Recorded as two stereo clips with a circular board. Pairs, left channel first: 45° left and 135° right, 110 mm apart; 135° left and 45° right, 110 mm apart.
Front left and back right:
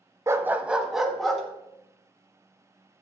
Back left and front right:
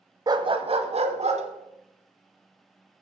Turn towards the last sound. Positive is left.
turn(degrees=-40)